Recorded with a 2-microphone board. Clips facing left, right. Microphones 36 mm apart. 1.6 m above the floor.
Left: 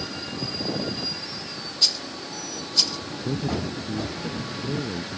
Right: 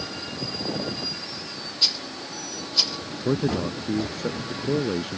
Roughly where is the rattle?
Centre.